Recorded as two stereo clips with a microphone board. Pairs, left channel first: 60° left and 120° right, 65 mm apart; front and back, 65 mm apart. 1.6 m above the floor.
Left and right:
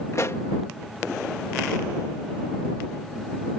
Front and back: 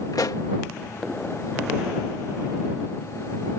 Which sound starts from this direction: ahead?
A pop, at 0.1 s.